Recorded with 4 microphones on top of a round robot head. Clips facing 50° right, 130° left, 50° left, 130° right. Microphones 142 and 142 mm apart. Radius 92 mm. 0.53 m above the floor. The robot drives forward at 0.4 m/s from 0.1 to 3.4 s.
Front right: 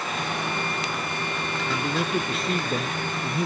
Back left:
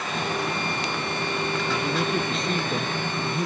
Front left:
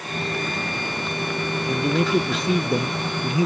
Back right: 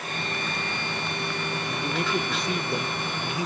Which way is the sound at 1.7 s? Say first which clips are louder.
Front right 1 dB, front left 9 dB; 40° left.